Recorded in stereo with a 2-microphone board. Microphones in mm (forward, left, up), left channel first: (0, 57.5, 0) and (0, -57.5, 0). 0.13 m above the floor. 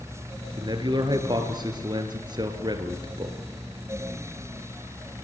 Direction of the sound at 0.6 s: 40° right (ahead or behind).